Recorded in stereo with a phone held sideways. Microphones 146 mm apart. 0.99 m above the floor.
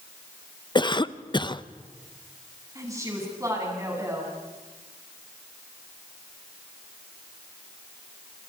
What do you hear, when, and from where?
0.8 s a cough: 35° left (ahead or behind), 0.7 m
2.8 s a woman speaking: 25° right (ahead or behind), 7.5 m